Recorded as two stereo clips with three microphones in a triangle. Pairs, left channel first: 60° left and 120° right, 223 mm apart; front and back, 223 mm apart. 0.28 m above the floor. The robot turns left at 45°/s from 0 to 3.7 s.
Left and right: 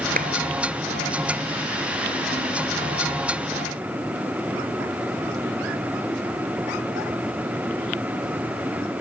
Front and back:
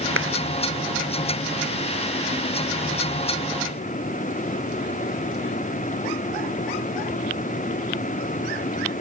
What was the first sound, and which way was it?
A clap, 170° right.